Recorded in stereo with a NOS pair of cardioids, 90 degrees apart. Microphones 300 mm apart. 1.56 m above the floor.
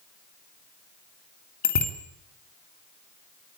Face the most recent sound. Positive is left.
turn(degrees=65)